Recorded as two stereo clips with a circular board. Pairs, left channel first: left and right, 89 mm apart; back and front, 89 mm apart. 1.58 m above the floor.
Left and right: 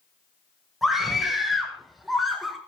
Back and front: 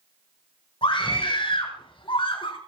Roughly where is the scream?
Behind.